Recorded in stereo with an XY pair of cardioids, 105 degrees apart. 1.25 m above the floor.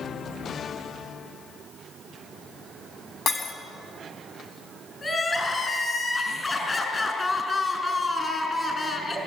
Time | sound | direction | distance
3.3 | breaking glass | 60° left | 3.5 m
5.0 | crying | 30° left | 5 m